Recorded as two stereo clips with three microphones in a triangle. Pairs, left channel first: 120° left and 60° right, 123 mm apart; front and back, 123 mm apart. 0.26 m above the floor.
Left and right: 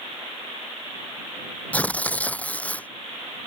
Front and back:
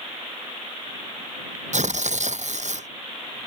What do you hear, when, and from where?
1.7 s tearing paper: 160° right